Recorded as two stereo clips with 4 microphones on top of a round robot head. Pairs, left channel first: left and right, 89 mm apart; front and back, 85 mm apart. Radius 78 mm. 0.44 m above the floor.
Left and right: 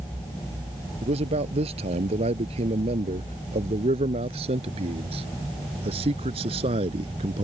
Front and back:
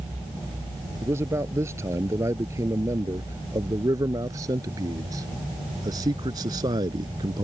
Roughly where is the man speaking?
Right.